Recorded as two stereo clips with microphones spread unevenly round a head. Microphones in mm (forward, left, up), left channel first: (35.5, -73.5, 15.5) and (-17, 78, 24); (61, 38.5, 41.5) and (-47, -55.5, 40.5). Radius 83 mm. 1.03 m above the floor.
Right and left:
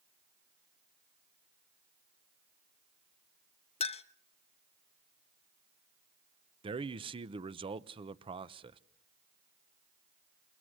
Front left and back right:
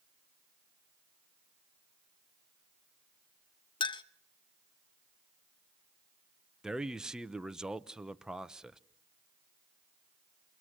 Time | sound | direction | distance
3.8 | a clink | 15° right | 0.8 m
6.6 | a man speaking | 140° left | 0.8 m